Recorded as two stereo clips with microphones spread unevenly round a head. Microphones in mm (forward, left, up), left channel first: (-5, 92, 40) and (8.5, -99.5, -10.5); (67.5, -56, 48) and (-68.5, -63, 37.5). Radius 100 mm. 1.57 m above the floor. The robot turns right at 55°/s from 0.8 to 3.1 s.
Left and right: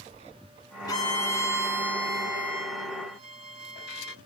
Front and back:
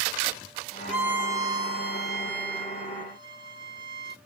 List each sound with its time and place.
0.9 s a violin: 90° left, 0.6 m; by 4.2 s 150° right, 0.6 m